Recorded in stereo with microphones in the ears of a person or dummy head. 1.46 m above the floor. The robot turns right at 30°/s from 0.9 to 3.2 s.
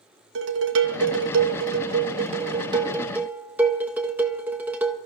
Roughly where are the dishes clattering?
Right.